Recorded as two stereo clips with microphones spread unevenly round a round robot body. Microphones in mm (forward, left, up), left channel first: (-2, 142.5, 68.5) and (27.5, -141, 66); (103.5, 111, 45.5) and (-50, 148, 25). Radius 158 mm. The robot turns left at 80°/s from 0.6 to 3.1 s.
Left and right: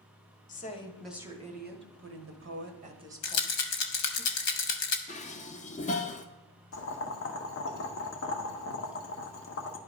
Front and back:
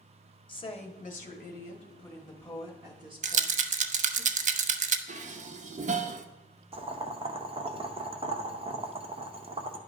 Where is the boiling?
130° left, 0.9 m.